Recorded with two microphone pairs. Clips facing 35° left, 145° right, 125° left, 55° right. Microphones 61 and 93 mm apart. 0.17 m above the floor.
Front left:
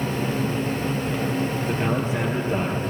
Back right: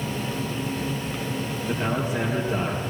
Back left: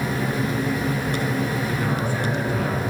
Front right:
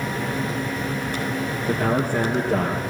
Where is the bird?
No bird in this recording.